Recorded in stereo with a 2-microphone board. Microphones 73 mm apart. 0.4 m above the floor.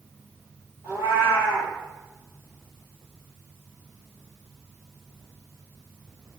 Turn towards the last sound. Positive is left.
turn(degrees=-35)  # may be behind; listen again after turning